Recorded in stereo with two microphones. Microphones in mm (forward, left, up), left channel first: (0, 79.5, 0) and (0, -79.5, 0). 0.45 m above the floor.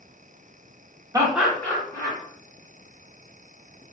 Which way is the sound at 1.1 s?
20° right (ahead or behind).